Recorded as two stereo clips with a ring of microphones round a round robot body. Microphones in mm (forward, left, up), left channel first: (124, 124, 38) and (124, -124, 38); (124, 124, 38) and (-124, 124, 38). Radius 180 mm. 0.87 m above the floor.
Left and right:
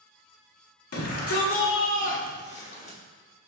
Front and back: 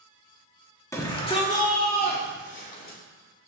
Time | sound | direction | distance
0.9 | a shout | 80° left | 2.0 m